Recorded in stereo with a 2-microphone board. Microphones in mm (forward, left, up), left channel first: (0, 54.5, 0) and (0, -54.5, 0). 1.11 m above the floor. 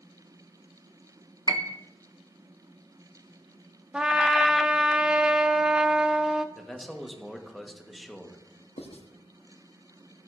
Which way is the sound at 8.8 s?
70° left (ahead or behind).